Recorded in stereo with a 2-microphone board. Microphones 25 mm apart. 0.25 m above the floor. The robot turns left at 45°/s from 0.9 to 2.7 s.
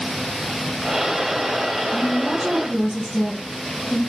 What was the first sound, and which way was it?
A woman speaking, straight ahead.